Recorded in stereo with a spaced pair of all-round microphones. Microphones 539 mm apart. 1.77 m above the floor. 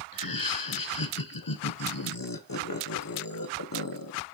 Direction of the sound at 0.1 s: 40° left (ahead or behind).